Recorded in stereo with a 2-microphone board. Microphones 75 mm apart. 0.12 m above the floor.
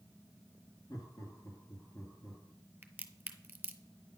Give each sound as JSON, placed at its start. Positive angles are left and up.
{"t": 0.9, "sound": "laughter", "side_deg": 55, "distance_m": 2.5}
{"t": 2.8, "sound": "a crack", "side_deg": -25, "distance_m": 0.6}